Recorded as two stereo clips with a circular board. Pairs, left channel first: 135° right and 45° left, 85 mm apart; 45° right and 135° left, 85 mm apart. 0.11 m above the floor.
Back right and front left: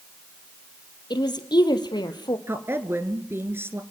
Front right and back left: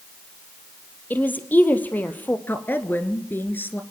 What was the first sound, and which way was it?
A woman speaking, 110° right.